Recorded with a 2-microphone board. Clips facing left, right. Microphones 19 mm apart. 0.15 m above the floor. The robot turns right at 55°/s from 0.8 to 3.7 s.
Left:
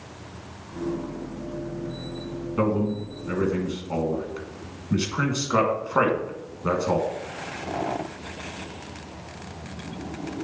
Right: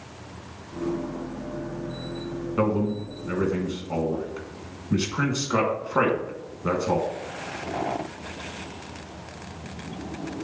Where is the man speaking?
10° right (ahead or behind), 1.4 m; by 7.1 s 15° left (ahead or behind), 1.4 m.